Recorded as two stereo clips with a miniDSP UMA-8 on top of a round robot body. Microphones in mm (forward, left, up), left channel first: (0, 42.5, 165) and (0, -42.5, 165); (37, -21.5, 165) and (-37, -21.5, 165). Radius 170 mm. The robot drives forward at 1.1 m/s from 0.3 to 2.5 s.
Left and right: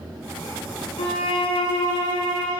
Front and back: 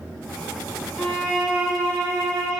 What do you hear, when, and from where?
1.0 s a violin: 80° left, 1.6 m; by 2.6 s 130° left, 2 m